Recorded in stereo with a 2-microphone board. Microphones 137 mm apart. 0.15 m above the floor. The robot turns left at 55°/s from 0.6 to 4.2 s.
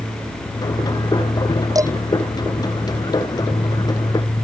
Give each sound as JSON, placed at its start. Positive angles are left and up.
{"t": 1.8, "sound": "dishes clattering", "side_deg": -30}